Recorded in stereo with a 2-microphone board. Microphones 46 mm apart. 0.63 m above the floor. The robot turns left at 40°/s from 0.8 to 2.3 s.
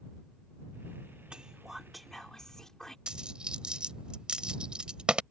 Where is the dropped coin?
20° right (ahead or behind).